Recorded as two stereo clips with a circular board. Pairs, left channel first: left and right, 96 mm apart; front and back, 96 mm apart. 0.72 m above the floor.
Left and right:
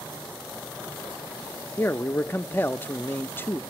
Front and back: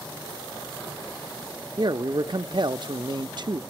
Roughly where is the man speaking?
Behind left.